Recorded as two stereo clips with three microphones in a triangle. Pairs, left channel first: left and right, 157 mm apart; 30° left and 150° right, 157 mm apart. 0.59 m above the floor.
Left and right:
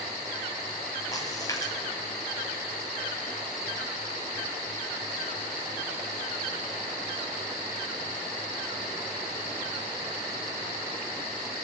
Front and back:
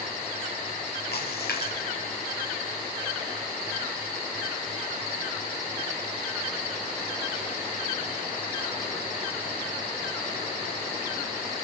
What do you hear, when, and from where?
1.1 s a splash: 20° left, 5 m